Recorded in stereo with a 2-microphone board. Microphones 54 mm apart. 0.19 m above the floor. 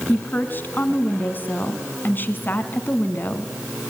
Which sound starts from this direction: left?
A woman speaking, at 0.1 s.